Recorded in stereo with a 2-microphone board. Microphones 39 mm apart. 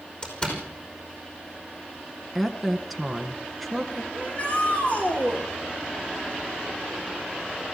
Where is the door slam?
25° left (ahead or behind), 5 m.